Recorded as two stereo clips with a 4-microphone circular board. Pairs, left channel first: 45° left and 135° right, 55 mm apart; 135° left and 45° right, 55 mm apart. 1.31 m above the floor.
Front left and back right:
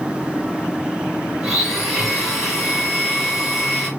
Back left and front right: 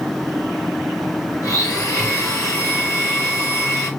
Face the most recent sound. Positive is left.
turn(degrees=140)